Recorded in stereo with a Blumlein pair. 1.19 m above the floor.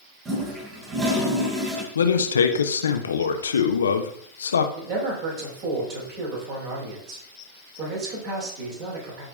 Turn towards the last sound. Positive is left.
turn(degrees=-40)